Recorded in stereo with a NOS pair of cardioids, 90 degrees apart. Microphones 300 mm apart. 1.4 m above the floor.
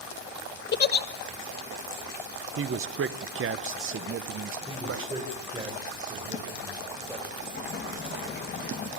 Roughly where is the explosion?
Ahead left.